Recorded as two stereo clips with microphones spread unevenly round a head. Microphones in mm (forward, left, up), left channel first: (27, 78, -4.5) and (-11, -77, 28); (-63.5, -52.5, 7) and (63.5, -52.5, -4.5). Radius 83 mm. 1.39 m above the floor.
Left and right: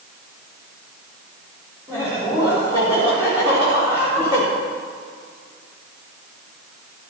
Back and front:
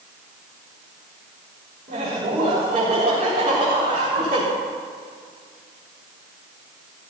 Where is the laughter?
30° right, 4.5 m.